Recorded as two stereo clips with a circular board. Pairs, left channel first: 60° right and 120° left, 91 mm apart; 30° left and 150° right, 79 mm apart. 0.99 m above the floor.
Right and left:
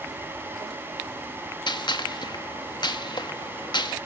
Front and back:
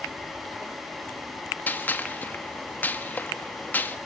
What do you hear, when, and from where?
1.7 s a gunshot: 35° right, 1.7 m